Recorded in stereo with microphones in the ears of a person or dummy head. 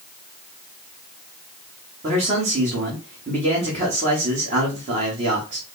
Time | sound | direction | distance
2.0 | a man speaking | 35° right (ahead or behind) | 1.4 m